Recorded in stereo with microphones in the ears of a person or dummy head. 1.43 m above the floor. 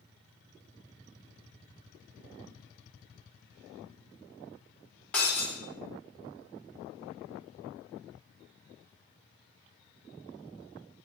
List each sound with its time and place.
5.1 s breaking glass: 5° left (ahead or behind), 0.8 m